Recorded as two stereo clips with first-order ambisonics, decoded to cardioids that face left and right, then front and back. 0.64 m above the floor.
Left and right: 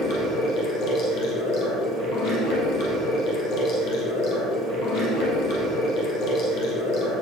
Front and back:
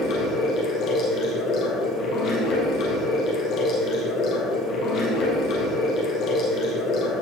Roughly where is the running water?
Ahead left.